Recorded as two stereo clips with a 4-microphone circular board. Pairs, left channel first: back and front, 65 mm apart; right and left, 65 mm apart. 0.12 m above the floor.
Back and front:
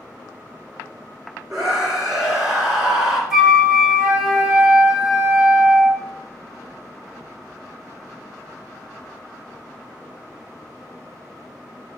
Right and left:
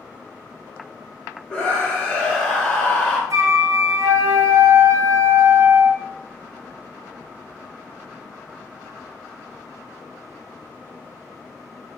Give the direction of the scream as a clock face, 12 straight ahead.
2 o'clock.